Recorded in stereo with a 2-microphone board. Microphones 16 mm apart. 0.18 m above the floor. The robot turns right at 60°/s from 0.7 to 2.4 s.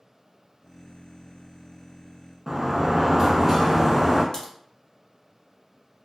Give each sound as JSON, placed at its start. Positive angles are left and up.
{"t": 2.5, "sound": "a sliding door", "side_deg": -30, "distance_m": 0.6}
{"t": 4.3, "sound": "a crack", "side_deg": 45, "distance_m": 1.1}